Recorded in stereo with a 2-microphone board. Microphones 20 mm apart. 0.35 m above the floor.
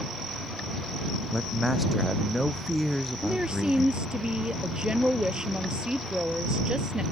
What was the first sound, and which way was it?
A man speaking, 5° right (ahead or behind).